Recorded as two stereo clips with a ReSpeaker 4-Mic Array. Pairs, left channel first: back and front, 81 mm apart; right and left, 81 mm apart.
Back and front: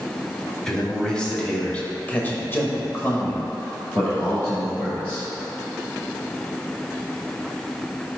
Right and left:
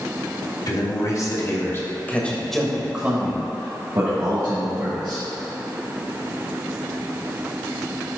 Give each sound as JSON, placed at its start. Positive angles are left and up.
{"t": 0.7, "sound": "a man speaking", "azimuth_deg": -100, "distance_m": 1.8}